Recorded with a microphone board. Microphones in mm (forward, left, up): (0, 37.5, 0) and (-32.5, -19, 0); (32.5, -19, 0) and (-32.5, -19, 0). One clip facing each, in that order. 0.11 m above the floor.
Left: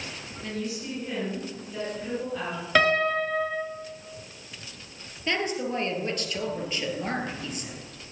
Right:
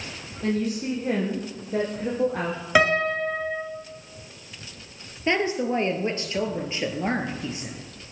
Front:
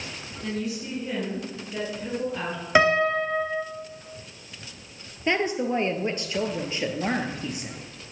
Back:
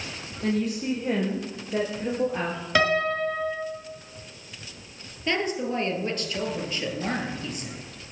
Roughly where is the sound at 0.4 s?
Behind right.